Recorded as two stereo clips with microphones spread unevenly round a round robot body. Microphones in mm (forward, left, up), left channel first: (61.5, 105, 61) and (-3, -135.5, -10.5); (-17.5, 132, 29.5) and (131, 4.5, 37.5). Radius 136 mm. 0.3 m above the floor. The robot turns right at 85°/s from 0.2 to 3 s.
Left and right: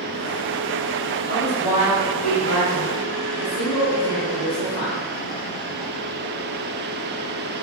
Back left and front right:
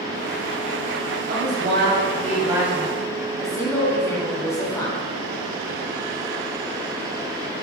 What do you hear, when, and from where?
1.3 s a woman speaking: 75° right, 2.5 m; by 5.0 s 70° left, 2.5 m